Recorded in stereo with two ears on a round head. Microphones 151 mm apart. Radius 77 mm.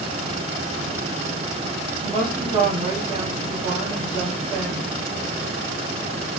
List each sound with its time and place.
2.0 s a woman speaking: 20° right (ahead or behind), 1.1 m